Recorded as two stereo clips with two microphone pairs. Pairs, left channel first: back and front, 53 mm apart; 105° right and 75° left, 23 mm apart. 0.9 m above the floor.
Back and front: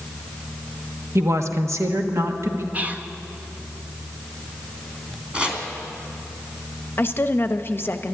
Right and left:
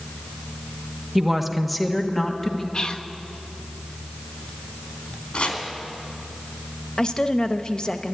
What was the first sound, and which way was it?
A woman speaking, 10° left.